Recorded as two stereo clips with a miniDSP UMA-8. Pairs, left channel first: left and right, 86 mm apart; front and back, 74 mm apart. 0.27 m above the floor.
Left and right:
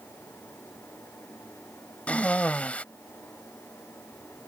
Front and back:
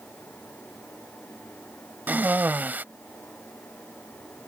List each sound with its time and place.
2.1 s a cough: 145° left